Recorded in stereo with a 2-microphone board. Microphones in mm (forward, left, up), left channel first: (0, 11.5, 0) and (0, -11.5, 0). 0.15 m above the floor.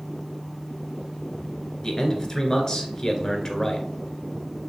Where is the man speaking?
20° left (ahead or behind), 1.9 m.